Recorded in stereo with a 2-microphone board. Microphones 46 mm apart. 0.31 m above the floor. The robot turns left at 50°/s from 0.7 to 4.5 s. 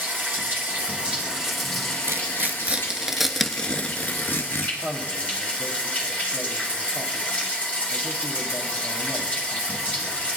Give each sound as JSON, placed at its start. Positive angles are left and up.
{"t": 0.0, "sound": "running water", "azimuth_deg": -135, "distance_m": 2.5}
{"t": 2.1, "sound": "tearing paper", "side_deg": -60, "distance_m": 0.7}
{"t": 4.8, "sound": "a man speaking", "side_deg": 20, "distance_m": 1.4}